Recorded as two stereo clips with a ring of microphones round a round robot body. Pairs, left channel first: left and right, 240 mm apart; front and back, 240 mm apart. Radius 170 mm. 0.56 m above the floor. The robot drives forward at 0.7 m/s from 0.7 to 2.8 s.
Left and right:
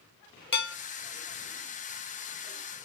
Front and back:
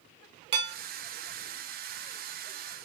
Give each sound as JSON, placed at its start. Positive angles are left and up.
{"t": 0.5, "sound": "dishes clattering", "azimuth_deg": 135, "distance_m": 1.2}